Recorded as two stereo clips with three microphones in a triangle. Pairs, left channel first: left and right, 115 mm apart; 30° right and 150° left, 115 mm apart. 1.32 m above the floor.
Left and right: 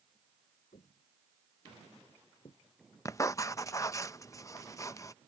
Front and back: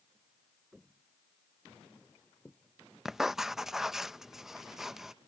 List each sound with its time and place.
0.7 s footsteps: 65° left; by 2.6 s 55° left
3.0 s writing: 70° left